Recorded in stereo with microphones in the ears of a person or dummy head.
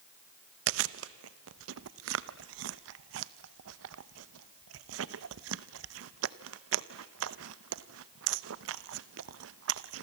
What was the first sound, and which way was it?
Chewing, 80° right.